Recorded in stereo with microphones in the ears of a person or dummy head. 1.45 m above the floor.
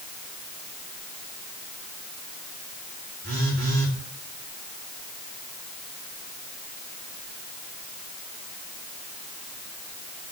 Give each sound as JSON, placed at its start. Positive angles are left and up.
{"t": 3.2, "sound": "a phone buzzing", "side_deg": -70, "distance_m": 3.5}